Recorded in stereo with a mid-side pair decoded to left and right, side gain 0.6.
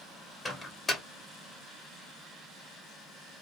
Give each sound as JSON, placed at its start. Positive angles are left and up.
{"t": 0.5, "sound": "a microwave", "azimuth_deg": 20, "distance_m": 1.0}